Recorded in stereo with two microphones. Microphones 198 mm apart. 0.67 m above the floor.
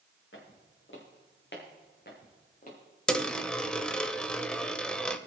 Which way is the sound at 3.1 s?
5° left (ahead or behind).